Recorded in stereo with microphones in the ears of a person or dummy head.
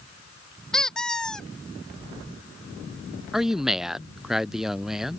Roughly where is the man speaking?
Centre.